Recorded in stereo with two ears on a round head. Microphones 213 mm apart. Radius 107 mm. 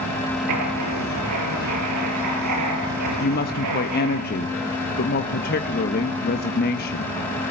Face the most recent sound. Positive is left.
turn(degrees=40)  # may be behind; listen again after turning